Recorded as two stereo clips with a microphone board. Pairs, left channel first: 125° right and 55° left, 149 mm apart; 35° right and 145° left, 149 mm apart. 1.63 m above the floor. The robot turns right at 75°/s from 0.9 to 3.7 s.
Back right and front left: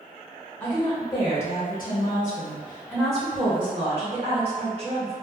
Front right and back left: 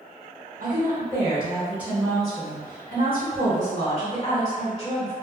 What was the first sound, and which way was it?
A woman speaking, 160° left.